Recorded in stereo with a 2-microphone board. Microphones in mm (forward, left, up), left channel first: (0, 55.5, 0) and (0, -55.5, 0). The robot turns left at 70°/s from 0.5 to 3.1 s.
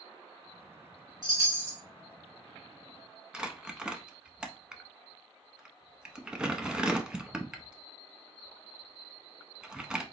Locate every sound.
1.2 s a chime: 110° right, 2 m; by 1.8 s 150° right, 2 m
3.3 s crumpling: 10° right (ahead or behind), 0.6 m